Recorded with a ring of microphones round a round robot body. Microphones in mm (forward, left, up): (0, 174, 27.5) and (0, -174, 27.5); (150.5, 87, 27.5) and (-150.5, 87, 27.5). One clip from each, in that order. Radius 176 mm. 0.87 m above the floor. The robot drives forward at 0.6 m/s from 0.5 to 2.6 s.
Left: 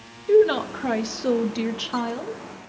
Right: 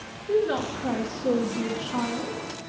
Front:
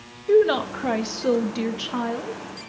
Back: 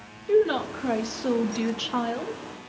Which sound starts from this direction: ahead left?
A woman speaking, at 0.3 s.